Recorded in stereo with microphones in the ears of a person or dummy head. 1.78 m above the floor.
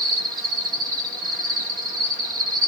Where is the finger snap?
I don't hear a finger snap.